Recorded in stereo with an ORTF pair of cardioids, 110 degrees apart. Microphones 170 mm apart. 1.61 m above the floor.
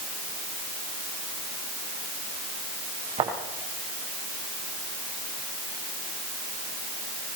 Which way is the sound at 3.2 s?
35° right.